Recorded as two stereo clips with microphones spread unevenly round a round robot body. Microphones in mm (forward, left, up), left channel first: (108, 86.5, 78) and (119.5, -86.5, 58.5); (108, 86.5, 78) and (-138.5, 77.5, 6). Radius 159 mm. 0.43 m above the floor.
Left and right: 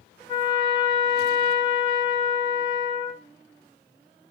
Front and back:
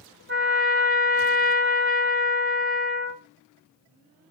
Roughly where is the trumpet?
Behind.